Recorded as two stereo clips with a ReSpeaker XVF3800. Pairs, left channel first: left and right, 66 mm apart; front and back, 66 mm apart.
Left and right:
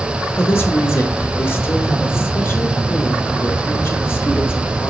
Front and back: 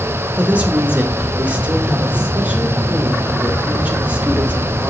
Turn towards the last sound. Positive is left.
turn(degrees=120)